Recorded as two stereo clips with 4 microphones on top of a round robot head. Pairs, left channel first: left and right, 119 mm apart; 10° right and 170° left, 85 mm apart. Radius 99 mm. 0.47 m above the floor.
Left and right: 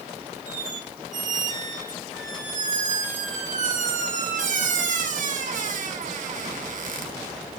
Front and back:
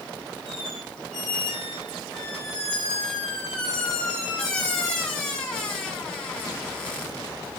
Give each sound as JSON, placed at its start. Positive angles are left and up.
{"t": 0.5, "sound": "a squeak", "azimuth_deg": -90, "distance_m": 3.5}